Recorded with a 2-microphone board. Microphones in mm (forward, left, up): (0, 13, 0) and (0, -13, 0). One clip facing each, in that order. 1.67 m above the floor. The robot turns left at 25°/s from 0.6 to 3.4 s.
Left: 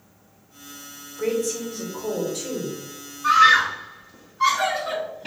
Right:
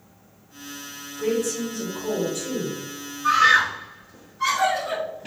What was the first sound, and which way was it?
A woman speaking, 110° left.